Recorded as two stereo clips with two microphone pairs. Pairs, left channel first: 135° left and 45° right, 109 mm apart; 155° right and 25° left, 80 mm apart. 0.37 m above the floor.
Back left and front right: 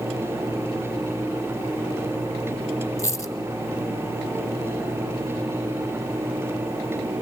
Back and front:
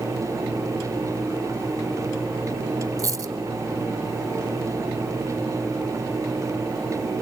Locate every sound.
3.0 s a dropped coin: 70° left, 1.8 m